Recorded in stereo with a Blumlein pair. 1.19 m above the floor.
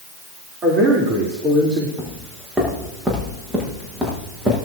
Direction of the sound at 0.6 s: 30° right.